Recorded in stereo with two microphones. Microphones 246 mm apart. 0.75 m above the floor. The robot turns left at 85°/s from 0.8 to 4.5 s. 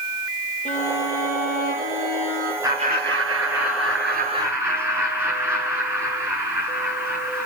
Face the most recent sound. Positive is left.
turn(degrees=-170)